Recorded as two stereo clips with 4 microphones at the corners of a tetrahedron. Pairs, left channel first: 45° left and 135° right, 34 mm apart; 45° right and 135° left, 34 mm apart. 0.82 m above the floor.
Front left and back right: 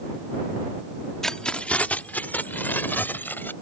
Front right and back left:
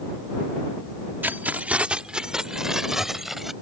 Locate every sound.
1.2 s keys jangling: 120° left; by 3.5 s 55° left